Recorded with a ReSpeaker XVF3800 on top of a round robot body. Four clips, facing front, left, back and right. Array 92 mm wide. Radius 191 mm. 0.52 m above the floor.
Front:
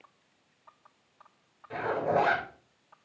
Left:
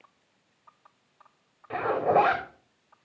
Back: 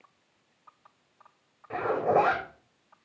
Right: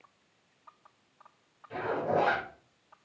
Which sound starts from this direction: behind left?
A zipper, at 1.7 s.